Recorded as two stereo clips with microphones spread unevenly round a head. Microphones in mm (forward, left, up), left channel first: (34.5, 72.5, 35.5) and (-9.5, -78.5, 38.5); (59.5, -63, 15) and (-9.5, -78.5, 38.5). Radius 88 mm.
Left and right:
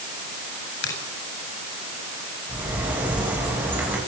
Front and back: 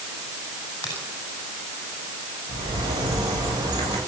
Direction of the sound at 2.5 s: 175° left.